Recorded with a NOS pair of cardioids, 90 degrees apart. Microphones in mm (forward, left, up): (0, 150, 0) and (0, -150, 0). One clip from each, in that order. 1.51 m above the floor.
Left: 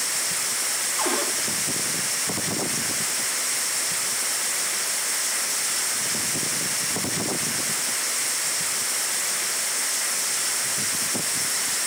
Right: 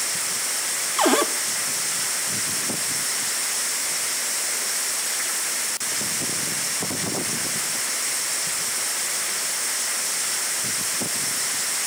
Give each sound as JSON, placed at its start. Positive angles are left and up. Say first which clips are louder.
{"t": 1.0, "sound": "a cupboard door", "louder": "right 8 dB", "azimuth_deg": -50, "distance_m": 1.2}